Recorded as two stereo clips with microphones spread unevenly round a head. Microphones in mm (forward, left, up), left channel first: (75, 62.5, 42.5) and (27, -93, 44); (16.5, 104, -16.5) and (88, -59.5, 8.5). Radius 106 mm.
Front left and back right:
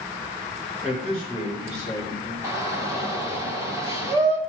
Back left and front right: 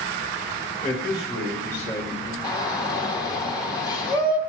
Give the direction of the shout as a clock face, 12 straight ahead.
6 o'clock.